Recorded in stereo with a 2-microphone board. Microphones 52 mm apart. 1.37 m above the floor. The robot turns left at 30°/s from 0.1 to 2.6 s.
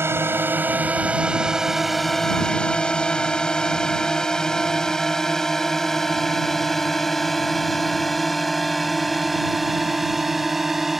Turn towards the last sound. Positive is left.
turn(degrees=-5)  # may be behind; listen again after turning